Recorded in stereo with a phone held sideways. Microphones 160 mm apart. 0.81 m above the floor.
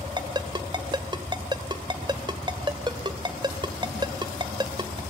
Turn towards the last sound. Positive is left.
turn(degrees=-30)  # may be behind; listen again after turning